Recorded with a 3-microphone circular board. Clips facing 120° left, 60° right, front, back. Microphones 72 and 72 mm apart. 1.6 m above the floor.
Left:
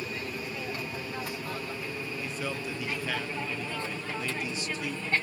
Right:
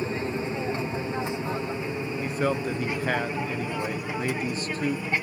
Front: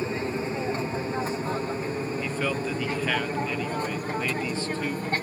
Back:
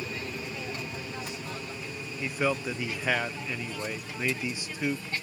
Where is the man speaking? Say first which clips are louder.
Right 11 dB, back 4 dB; 105° right.